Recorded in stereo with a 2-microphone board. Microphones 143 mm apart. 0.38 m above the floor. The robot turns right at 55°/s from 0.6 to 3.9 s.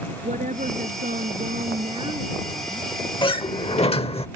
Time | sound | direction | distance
0.2 | a woman speaking | 115° right | ?
3.2 | a sliding door | 60° left | ?